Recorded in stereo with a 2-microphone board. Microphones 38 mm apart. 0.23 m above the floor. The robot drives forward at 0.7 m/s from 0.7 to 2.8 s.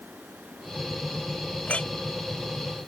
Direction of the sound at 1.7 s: 35° left (ahead or behind).